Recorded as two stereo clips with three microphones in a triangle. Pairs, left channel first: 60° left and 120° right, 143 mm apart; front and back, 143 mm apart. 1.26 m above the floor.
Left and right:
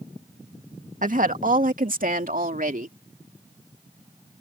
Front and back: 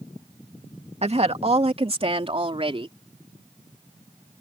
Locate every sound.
1.0 s a woman speaking: 140° right; by 3.0 s 130° right